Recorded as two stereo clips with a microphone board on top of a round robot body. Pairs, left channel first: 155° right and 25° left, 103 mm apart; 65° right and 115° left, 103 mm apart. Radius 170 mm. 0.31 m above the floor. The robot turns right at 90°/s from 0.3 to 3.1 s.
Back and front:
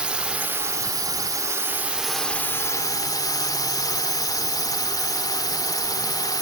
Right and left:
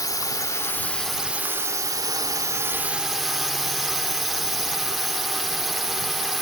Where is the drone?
50° right; by 6.4 s 160° right.